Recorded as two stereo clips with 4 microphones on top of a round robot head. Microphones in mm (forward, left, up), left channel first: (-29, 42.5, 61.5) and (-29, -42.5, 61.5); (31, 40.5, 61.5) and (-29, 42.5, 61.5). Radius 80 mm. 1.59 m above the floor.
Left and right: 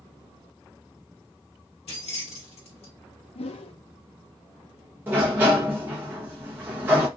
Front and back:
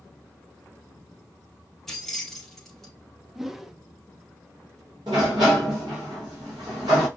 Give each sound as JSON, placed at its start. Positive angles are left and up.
{"t": 1.9, "sound": "keys jangling", "azimuth_deg": 85, "distance_m": 1.6}
{"t": 3.4, "sound": "a whoosh", "azimuth_deg": 95, "distance_m": 0.5}
{"t": 5.1, "sound": "a sliding door", "azimuth_deg": -150, "distance_m": 1.0}